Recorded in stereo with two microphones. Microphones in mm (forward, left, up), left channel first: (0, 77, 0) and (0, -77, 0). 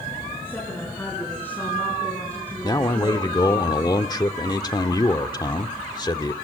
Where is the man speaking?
25° left (ahead or behind), 1.2 m.